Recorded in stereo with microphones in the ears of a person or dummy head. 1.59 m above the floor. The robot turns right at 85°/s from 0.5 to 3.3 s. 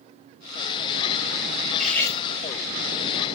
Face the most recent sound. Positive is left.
turn(degrees=125)